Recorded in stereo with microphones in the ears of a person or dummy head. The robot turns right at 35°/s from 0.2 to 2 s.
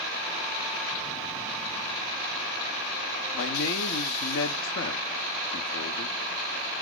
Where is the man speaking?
75° left (ahead or behind), 0.5 m.